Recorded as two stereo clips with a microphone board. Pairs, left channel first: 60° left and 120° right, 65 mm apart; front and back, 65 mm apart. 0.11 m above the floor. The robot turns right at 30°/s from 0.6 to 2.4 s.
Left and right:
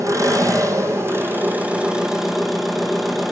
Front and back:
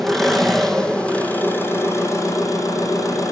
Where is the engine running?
85° right, 1.8 m; by 3.3 s 30° right, 1.8 m.